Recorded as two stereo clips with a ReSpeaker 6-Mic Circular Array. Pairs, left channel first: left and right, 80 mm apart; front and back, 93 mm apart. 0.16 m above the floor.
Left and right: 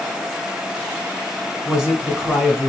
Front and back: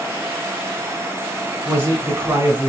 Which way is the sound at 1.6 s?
160° right.